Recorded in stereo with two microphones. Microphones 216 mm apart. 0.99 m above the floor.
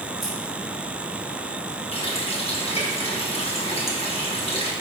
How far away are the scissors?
About 3.5 m.